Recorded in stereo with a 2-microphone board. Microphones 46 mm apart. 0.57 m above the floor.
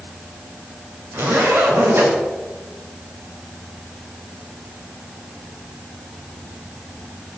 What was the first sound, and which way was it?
A zipper, 50° right (ahead or behind).